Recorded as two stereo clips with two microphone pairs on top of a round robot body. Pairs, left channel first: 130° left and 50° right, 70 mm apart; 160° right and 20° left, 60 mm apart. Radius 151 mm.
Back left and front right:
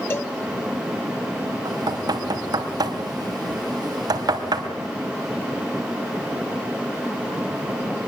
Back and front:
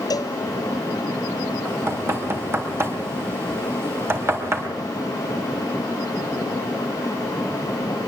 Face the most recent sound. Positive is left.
turn(degrees=-25)